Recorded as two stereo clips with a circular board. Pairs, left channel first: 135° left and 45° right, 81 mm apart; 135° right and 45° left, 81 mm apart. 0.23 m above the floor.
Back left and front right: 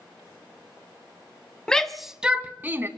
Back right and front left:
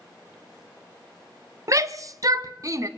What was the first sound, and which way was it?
A shout, 60° left.